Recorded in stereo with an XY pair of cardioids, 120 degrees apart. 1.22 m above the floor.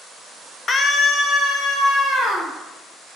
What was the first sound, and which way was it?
A scream, 35° left.